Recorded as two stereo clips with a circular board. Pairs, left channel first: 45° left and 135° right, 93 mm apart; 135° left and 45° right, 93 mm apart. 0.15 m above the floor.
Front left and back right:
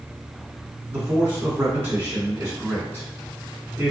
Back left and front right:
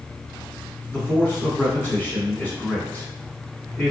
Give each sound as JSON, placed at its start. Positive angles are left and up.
{"t": 0.9, "sound": "a man speaking", "azimuth_deg": -175, "distance_m": 1.5}